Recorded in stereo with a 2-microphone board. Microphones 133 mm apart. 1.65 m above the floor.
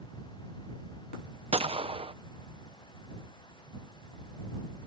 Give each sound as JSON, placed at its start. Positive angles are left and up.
{"t": 1.5, "sound": "a gunshot", "side_deg": -45}